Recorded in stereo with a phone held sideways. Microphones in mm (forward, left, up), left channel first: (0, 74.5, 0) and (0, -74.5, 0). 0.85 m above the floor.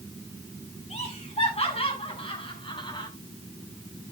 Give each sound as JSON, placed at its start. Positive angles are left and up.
{"t": 0.9, "sound": "laughter", "side_deg": 45, "distance_m": 6.5}